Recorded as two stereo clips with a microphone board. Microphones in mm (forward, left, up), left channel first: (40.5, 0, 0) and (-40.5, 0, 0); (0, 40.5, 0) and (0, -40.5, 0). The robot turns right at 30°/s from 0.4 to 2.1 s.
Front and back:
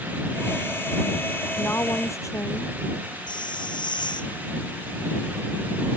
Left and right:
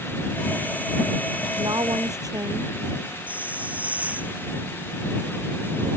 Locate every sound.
1.6 s a woman speaking: 65° right; by 2.8 s 50° right
3.3 s a hiss: 20° right